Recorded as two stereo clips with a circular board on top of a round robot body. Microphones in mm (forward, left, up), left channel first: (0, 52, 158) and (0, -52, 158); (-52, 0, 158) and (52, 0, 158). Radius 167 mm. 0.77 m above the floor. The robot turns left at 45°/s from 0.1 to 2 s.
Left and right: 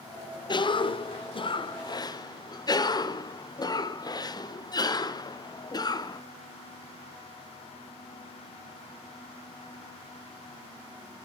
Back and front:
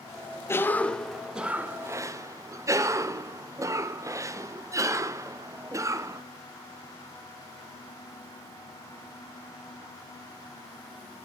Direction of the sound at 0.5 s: 120° left.